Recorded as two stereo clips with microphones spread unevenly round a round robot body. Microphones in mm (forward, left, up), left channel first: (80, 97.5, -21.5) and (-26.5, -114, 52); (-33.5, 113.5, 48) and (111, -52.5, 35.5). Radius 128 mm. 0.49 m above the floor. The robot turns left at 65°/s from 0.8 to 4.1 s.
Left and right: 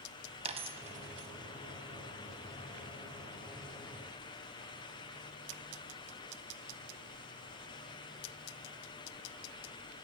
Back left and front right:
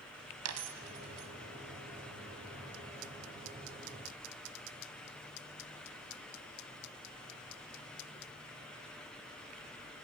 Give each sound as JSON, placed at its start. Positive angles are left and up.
{"t": 0.5, "sound": "a dropped coin", "azimuth_deg": -55, "distance_m": 0.8}